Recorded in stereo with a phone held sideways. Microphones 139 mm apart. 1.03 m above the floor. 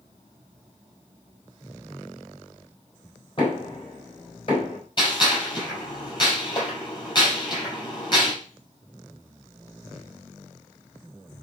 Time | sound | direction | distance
3.4 | knocking | 40° left (ahead or behind) | 4 m
5.0 | a gunshot | 30° left (ahead or behind) | 5 m